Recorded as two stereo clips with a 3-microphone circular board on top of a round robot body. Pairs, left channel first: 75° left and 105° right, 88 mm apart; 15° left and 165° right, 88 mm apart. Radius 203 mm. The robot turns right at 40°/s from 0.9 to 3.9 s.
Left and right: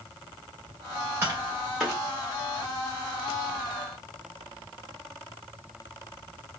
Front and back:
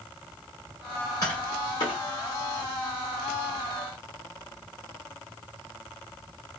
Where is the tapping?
40° right, 0.8 m; by 2.0 s 10° right, 0.8 m.